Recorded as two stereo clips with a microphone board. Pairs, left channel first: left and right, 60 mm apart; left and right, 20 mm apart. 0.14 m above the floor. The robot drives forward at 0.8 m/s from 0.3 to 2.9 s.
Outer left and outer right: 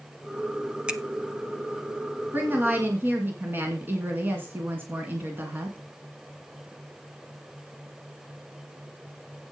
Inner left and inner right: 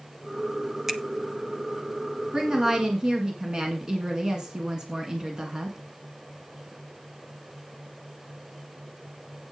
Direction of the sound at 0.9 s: 20° right (ahead or behind).